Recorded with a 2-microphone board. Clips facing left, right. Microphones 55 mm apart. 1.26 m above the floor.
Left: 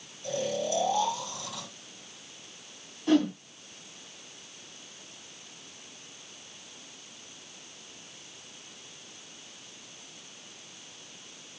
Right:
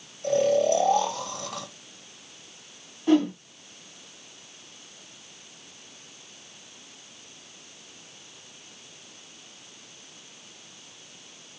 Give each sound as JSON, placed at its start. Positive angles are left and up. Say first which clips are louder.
{"t": 0.2, "sound": "snoring", "louder": "right 10 dB", "side_deg": -60, "distance_m": 2.5}
{"t": 3.1, "sound": "a whoosh", "louder": "right 3 dB", "side_deg": -10, "distance_m": 3.0}